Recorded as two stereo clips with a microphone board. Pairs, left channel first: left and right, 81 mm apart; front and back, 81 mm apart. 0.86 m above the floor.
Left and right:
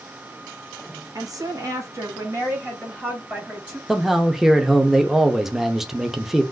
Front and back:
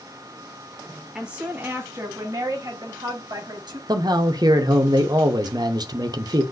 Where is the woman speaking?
100° right, 1.3 m; by 3.8 s 160° right, 2.5 m.